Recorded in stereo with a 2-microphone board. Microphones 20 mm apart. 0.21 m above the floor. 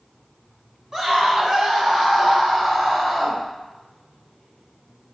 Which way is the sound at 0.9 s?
30° right (ahead or behind).